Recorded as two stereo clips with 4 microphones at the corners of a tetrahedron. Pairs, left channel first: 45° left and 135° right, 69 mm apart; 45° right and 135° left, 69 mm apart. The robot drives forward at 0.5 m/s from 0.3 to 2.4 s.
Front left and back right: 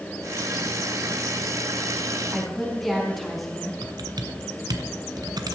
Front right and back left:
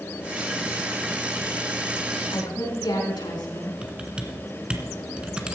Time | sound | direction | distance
2.3 | a woman speaking | 45° right | 5 m
3.8 | typing on a keyboard | 150° right | 1.6 m